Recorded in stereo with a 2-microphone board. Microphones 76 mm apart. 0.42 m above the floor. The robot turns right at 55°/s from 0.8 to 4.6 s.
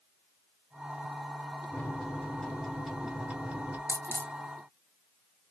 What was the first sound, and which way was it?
A microwave, 20° left (ahead or behind).